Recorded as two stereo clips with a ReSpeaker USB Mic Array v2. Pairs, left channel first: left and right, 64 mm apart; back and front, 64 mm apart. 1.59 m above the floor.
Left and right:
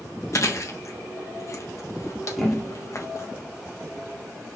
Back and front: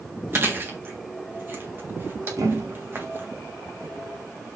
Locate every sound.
0.3 s chewing: 55° left, 1.4 m
2.4 s a thud: straight ahead, 1.8 m